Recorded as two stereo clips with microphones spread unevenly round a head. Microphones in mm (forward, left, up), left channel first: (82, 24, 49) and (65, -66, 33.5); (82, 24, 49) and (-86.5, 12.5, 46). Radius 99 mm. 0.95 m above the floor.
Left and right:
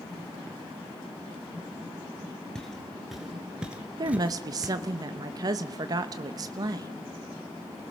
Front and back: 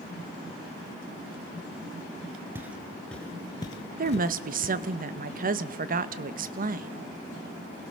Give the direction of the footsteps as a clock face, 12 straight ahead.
8 o'clock.